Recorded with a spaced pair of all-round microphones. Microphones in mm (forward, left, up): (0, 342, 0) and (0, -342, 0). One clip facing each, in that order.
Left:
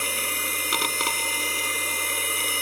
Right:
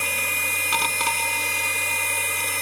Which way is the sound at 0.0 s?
20° right (ahead or behind).